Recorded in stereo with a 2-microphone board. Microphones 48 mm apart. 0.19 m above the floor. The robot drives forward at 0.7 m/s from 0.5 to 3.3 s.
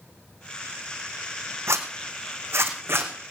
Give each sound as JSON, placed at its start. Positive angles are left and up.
{"t": 1.7, "sound": "a zipper", "side_deg": -80, "distance_m": 2.0}